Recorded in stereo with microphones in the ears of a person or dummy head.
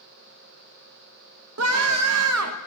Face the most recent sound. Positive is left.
turn(degrees=-85)